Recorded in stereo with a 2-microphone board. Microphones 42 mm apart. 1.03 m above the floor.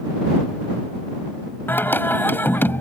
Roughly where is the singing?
Left.